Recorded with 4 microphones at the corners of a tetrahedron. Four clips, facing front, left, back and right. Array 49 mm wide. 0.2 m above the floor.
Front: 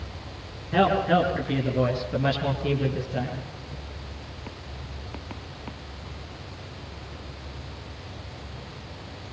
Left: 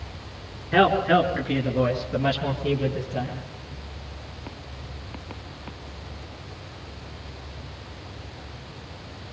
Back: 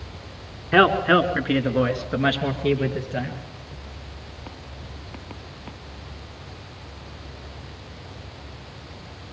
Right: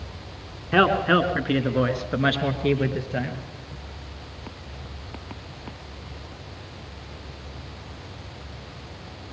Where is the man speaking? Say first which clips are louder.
Even, back 5 dB; 160° right, 3 m; by 3.4 s 125° right, 4.5 m.